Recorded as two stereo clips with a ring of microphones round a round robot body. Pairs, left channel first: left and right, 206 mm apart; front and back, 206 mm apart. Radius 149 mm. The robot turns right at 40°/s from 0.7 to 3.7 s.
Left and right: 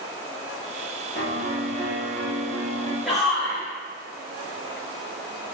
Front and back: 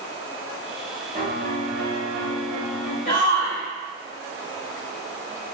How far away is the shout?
About 1.0 m.